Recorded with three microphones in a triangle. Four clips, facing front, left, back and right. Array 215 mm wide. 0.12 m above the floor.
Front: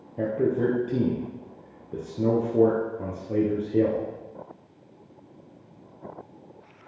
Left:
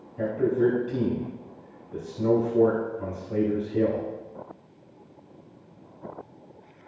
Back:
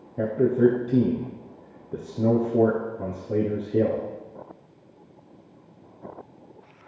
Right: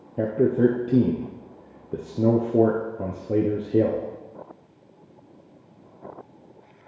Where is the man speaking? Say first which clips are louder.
Right 3 dB, back 4 dB; 95° right, 3 m.